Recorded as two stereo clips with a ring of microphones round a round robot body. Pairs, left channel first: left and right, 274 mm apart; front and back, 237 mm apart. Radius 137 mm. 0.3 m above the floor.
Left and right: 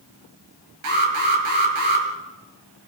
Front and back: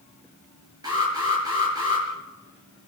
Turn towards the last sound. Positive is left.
turn(degrees=-105)